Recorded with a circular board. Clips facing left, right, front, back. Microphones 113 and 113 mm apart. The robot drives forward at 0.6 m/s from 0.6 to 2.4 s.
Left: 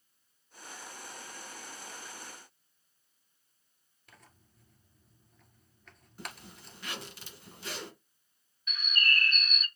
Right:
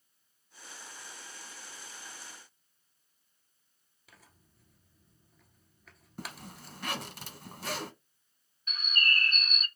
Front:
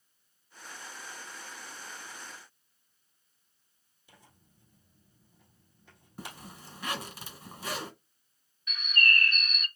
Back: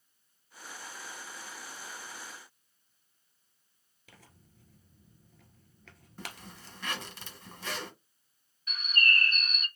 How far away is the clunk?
No clunk in this recording.